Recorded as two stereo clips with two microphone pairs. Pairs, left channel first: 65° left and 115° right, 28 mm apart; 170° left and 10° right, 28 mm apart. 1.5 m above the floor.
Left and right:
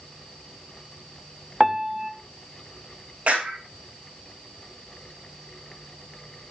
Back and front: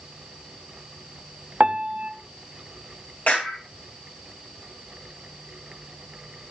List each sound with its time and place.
1.6 s a piano: 40° right, 1.3 m
3.3 s a clap: 155° right, 8.5 m